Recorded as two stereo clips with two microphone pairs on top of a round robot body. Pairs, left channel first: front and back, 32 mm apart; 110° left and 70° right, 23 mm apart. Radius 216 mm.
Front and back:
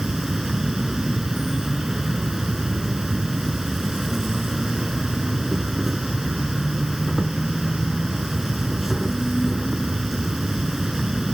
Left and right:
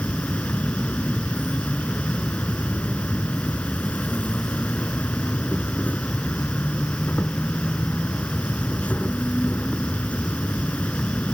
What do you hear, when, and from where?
0.0 s an insect: 100° left